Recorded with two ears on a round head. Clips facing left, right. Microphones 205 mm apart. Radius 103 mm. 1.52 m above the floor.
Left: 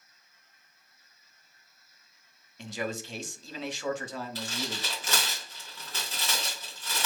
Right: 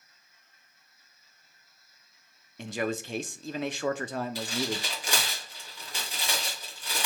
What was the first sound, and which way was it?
A man speaking, 45° right (ahead or behind).